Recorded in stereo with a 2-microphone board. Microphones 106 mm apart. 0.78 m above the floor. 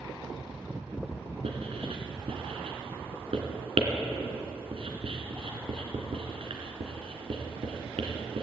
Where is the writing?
75° right (ahead or behind), 2 m.